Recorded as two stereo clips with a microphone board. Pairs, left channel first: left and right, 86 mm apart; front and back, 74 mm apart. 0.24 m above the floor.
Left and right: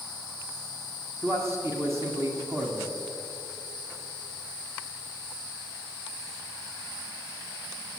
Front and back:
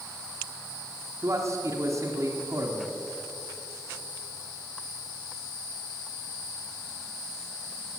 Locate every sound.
1.2 s a man speaking: 150° right, 1.6 m